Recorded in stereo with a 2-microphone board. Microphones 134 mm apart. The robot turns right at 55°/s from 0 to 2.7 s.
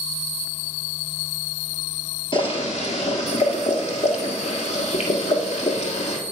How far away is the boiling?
About 1.4 m.